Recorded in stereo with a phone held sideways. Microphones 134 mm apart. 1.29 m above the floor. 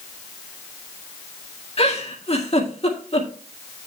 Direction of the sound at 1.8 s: 50° left (ahead or behind).